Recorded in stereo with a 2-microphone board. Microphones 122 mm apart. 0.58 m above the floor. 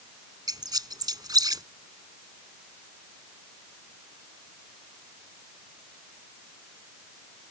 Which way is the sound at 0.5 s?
35° right (ahead or behind).